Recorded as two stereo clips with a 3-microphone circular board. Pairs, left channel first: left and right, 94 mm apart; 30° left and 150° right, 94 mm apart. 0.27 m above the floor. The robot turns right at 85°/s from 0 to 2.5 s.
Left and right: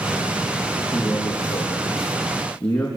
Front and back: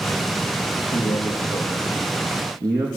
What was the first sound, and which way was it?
A man speaking, 30° left.